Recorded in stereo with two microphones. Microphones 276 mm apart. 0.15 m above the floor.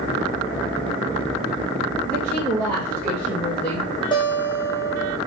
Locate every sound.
2.0 s a woman speaking: 5° left (ahead or behind), 2.5 m
4.1 s a guitar: 20° left (ahead or behind), 1.5 m